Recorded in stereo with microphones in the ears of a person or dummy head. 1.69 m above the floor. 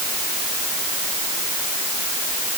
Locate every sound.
Only background noise.